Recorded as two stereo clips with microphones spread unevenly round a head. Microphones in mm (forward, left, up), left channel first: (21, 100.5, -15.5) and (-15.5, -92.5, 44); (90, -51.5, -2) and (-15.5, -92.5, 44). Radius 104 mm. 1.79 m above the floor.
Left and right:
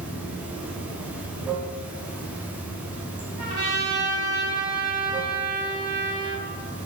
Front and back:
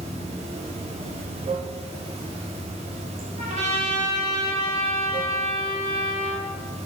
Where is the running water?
175° right, 0.9 m.